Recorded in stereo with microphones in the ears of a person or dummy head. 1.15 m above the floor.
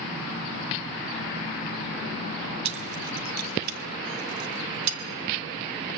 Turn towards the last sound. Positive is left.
turn(degrees=-70)  # may be behind; listen again after turning